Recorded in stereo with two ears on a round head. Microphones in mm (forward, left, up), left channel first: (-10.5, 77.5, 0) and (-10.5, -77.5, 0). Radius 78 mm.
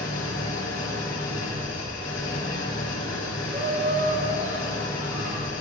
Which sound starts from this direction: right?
Laughter, at 3.5 s.